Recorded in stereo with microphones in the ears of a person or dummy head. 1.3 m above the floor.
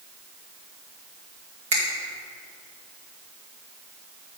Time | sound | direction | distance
1.7 | a finger snap | 35° right (ahead or behind) | 1.3 m